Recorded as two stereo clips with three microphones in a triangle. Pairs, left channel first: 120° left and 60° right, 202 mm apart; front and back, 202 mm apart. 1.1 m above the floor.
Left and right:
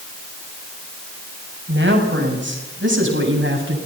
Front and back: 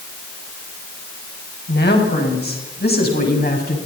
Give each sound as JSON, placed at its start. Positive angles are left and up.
{"t": 1.7, "sound": "a woman speaking", "azimuth_deg": -35, "distance_m": 8.0}